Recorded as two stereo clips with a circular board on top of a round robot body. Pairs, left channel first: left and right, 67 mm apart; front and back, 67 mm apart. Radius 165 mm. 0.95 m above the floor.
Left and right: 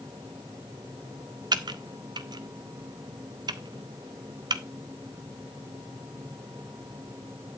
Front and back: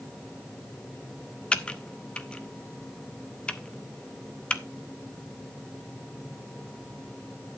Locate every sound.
1.5 s typing on a keyboard: 80° right, 0.8 m